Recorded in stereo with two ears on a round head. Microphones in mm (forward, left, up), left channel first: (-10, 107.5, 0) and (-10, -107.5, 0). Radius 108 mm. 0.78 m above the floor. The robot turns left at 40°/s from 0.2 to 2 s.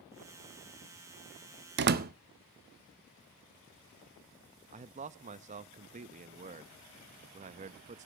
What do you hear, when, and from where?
1.8 s a door slam: 45° right (ahead or behind), 0.7 m; by 2.1 s 40° right (ahead or behind), 0.7 m
4.7 s a man speaking: 30° right (ahead or behind), 0.5 m